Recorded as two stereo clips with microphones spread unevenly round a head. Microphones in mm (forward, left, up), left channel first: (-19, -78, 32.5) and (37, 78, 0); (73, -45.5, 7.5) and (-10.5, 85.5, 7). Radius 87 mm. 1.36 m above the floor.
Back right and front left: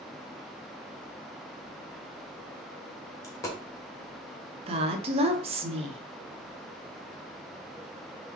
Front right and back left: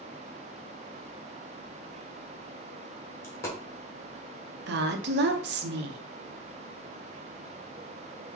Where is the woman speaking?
120° left, 0.7 m.